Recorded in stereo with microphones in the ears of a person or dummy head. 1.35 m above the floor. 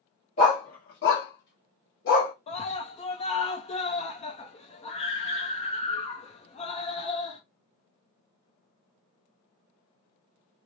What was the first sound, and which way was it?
A dog barking, 35° left (ahead or behind).